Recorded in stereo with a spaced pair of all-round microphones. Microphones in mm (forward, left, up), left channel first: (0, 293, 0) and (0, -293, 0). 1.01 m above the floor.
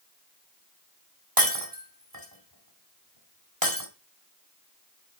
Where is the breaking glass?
35° right (ahead or behind), 2 m.